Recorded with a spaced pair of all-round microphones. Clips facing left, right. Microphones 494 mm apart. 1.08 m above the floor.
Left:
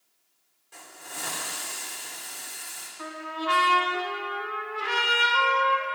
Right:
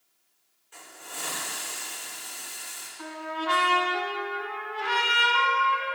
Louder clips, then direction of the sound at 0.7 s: Left 1 dB; 60° left (ahead or behind).